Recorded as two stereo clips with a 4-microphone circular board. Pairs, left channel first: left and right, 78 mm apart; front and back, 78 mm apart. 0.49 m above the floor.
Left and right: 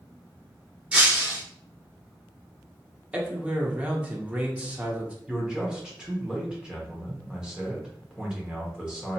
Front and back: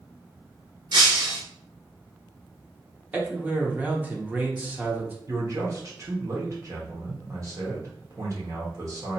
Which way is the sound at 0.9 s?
160° right.